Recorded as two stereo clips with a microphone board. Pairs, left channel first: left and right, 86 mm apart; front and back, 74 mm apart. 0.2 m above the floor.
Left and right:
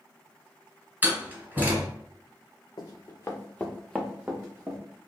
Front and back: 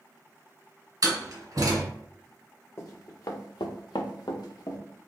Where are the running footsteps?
50° left, 0.8 m; by 4.8 s 35° right, 1.0 m.